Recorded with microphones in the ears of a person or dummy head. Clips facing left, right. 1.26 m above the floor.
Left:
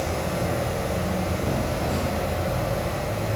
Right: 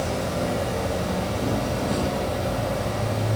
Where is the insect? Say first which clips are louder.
Right 1 dB; 15° right (ahead or behind), 1.9 m.